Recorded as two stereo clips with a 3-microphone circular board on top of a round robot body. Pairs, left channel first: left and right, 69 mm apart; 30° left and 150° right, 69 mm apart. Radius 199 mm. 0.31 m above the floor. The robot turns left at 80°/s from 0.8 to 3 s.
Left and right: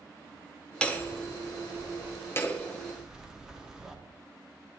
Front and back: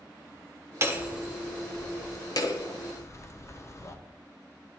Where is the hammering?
165° left, 1.2 m; by 4.0 s 10° right, 1.2 m.